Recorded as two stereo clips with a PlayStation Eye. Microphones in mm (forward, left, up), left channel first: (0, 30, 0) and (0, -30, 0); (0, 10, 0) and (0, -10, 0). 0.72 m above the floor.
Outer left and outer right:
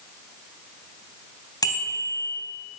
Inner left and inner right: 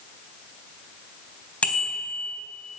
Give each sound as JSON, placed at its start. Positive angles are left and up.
{"t": 1.6, "sound": "a bicycle bell", "side_deg": 80, "distance_m": 3.5}